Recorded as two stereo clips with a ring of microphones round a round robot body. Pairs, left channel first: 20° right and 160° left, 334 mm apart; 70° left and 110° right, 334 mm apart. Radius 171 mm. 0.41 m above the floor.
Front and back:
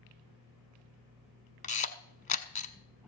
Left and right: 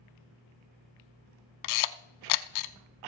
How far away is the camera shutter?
About 0.7 m.